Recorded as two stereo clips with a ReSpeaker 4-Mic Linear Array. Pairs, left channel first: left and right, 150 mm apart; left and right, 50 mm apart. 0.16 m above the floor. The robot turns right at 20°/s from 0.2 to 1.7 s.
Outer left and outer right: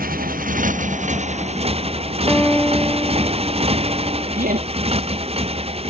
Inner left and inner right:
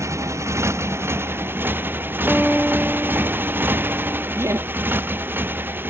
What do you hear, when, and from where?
0.0 s a motorcycle: 70° right; by 5.9 s 40° right
2.3 s a guitar: 5° left (ahead or behind)
4.3 s laughter: 70° right (ahead or behind)